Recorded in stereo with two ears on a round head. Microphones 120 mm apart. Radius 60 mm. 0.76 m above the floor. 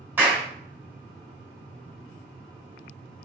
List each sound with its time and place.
0.2 s a clap: 15° right (ahead or behind), 3 m